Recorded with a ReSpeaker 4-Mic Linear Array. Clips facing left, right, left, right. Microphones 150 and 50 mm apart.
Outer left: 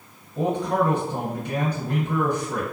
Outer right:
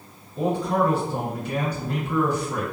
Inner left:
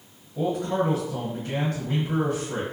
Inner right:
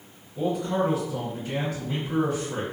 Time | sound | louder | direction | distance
0.3 | a man speaking | even, even | 50° left (ahead or behind) | 1.7 m